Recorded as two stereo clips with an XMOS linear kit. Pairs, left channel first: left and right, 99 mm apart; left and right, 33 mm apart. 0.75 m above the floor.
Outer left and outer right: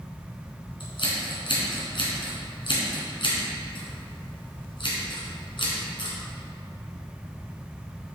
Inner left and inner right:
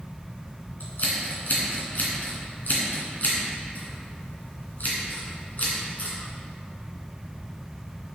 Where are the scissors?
60° left (ahead or behind), 2.5 m.